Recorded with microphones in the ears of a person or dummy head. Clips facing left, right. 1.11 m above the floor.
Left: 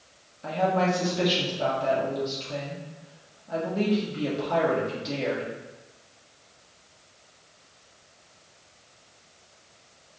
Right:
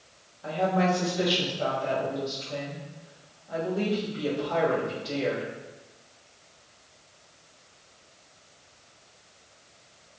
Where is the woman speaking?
35° left (ahead or behind), 1.2 m.